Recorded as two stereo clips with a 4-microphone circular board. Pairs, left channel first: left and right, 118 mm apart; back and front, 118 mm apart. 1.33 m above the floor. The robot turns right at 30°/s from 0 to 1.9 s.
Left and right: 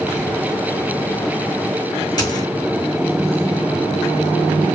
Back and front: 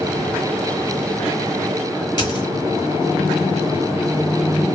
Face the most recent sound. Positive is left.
turn(degrees=135)